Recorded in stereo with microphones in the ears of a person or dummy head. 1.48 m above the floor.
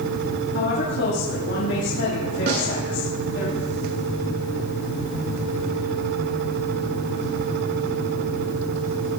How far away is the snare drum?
About 5.5 m.